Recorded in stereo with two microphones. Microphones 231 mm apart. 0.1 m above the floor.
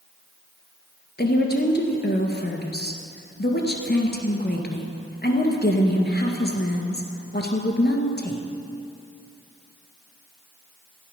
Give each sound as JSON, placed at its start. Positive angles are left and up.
{"t": 1.2, "sound": "a woman speaking", "side_deg": 45, "distance_m": 1.7}